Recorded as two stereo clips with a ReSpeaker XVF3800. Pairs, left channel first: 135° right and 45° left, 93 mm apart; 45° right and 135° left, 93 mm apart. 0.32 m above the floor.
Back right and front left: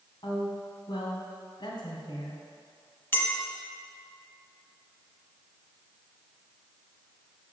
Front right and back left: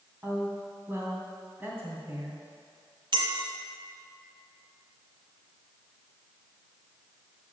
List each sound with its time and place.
0.2 s a woman speaking: 160° right, 2.5 m
3.1 s a clink: 160° left, 1.3 m